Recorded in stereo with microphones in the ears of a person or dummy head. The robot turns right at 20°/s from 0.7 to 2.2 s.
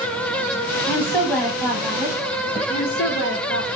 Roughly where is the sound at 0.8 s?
Centre.